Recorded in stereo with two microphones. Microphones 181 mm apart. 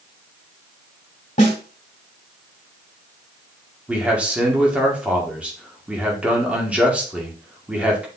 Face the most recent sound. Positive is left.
turn(degrees=-5)  # may be behind; listen again after turning